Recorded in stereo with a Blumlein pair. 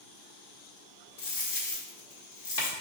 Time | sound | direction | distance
1.2 | a dropped coin | 50° left | 1.4 m